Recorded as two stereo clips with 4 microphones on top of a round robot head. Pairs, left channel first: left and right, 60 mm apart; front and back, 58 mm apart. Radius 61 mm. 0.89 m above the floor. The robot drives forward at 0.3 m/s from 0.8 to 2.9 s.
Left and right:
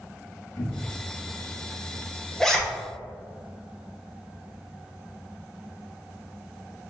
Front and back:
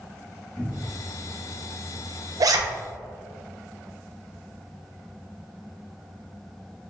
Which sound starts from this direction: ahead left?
A cupboard door, at 0.6 s.